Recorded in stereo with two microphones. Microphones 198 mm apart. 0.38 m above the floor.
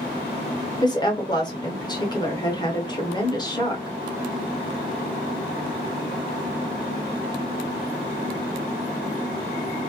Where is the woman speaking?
20° left (ahead or behind), 0.9 m.